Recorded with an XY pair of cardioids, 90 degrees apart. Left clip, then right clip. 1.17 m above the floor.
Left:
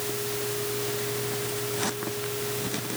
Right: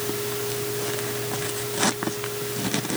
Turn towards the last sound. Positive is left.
No sound to turn to.